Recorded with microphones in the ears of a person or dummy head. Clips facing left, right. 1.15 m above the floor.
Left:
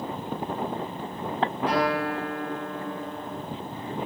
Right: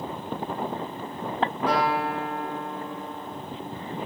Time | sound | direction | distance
1.7 | a guitar | 65° right (ahead or behind) | 1.3 m